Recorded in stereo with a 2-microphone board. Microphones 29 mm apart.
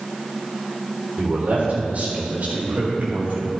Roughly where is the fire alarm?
No fire alarm in this recording.